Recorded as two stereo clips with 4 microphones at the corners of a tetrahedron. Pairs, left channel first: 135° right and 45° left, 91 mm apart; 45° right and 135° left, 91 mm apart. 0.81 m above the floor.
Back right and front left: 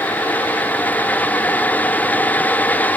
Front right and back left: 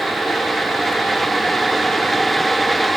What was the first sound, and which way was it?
Only background noise.